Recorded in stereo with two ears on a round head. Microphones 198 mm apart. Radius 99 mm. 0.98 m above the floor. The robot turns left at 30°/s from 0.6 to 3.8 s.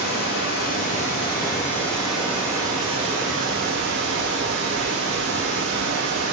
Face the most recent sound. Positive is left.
turn(degrees=-50)